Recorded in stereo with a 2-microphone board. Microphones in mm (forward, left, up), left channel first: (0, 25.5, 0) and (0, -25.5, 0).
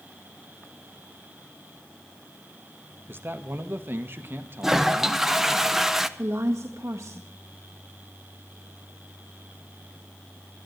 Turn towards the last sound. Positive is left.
turn(degrees=-80)